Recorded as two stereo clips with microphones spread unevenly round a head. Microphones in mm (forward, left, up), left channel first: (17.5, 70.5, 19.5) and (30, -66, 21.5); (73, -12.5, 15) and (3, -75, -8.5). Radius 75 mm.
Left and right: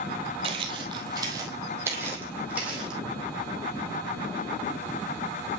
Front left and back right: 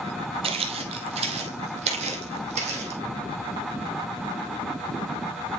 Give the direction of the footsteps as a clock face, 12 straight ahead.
4 o'clock.